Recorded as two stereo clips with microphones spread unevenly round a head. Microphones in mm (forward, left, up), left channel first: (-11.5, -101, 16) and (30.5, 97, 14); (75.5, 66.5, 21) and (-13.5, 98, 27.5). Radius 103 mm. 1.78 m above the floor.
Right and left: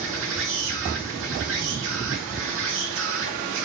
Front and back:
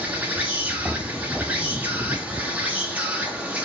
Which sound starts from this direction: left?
An insect, at 0.0 s.